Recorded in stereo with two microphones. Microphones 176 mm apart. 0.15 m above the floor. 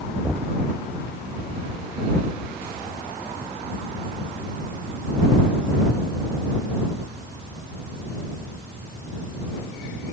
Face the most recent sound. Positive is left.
turn(degrees=5)  # may be behind; listen again after turning